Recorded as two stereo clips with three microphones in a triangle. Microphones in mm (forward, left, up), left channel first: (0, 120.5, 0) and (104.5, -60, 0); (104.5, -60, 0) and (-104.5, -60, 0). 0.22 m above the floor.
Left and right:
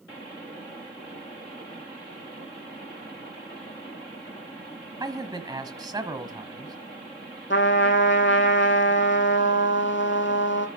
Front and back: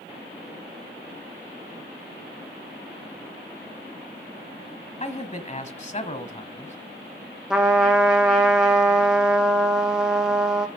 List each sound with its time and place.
5.0 s a man speaking: 5° right, 1.3 m
7.5 s a trumpet: 95° left, 1.8 m